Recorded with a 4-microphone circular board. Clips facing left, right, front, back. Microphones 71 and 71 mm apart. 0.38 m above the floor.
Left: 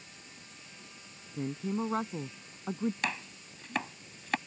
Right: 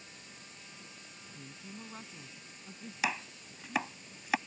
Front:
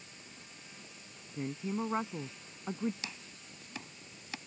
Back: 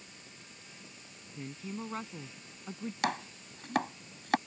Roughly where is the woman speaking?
Ahead left.